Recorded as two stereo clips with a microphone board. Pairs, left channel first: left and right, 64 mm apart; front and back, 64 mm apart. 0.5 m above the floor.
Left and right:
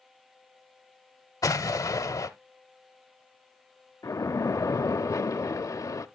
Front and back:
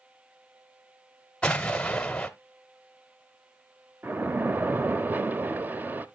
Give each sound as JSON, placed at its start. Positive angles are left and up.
{"t": 1.4, "sound": "an explosion", "azimuth_deg": 75, "distance_m": 0.8}
{"t": 4.0, "sound": "a splash", "azimuth_deg": 120, "distance_m": 0.6}